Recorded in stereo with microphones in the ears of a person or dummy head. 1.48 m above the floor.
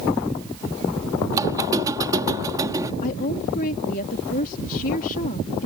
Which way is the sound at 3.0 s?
45° left (ahead or behind).